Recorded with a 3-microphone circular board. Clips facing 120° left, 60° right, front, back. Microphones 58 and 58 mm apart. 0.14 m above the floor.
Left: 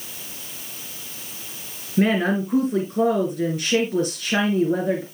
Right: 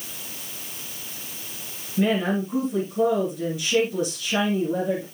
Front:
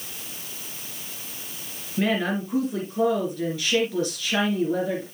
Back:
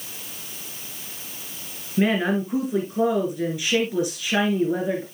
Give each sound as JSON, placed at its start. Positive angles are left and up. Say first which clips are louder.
{"t": 2.0, "sound": "a woman speaking", "louder": "left 3 dB, back 3 dB", "azimuth_deg": 110, "distance_m": 2.5}